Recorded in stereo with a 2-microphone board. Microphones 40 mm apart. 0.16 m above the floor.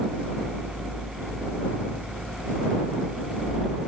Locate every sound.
Only background noise.